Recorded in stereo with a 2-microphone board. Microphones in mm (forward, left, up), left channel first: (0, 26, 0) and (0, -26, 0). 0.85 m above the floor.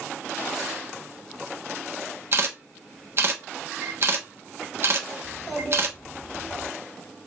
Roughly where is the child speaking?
Centre.